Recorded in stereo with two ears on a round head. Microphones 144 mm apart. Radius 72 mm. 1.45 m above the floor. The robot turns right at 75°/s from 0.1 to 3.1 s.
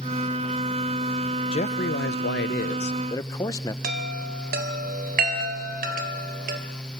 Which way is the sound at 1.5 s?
40° left.